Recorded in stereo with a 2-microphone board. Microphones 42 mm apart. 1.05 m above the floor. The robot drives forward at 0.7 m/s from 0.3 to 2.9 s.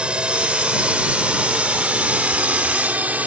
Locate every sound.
0.0 s a drone: 30° right (ahead or behind); by 3.3 s 45° right (ahead or behind)